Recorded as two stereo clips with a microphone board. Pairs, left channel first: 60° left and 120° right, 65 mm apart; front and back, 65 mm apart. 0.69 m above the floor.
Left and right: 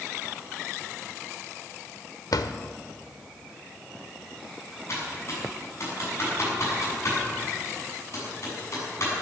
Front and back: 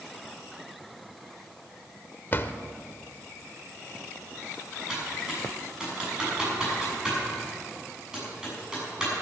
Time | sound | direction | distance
2.3 | a drawer | 55° left | 0.8 m
4.9 | typing on a keyboard | 100° left | 7 m